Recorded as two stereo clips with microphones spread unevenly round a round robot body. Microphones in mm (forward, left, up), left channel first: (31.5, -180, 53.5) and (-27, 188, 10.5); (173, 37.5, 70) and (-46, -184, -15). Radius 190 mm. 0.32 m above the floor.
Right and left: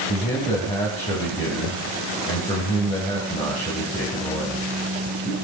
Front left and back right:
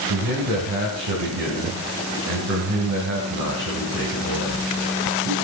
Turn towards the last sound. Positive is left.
turn(degrees=-155)